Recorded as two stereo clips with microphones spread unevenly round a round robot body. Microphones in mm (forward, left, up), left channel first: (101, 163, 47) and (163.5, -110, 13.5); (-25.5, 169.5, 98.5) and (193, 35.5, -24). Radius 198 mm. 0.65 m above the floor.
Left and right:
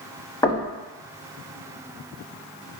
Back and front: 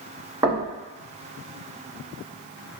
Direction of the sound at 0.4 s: 20° left.